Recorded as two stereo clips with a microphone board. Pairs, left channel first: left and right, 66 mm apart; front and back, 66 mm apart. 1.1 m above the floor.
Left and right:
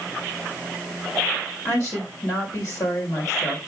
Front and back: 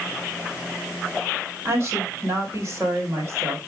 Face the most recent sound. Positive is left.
turn(degrees=130)